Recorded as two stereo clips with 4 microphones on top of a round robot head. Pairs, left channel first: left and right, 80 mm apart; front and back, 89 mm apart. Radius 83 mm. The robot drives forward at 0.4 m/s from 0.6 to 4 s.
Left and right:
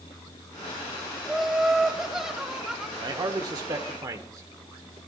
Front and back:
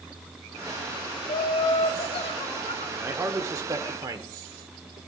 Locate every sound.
1.2 s laughter: 5° right, 1.7 m
3.0 s a man speaking: 115° right, 1.0 m; by 5.0 s 135° right, 1.3 m